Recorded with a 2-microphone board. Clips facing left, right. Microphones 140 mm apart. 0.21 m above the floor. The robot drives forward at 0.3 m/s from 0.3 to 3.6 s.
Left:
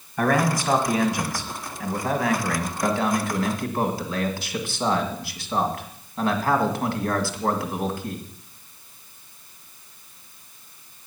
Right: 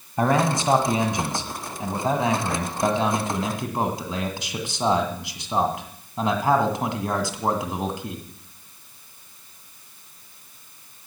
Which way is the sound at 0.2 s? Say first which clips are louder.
Right 1 dB; 25° right (ahead or behind).